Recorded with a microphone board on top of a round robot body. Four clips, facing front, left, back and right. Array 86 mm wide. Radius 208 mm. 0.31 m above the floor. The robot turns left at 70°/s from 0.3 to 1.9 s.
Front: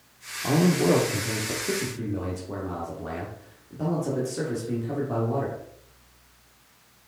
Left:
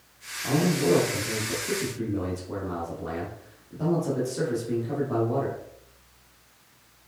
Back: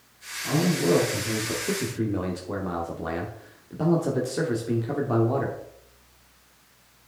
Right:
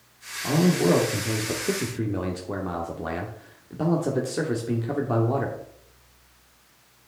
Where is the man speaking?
20° right, 1.3 m; by 5.6 s 120° right, 1.3 m.